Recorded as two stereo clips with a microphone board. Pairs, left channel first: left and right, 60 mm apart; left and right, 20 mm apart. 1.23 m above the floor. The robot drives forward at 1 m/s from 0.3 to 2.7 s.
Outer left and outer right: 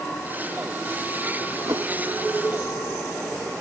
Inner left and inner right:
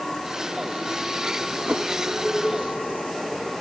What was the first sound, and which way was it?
A whoosh, 70° right (ahead or behind).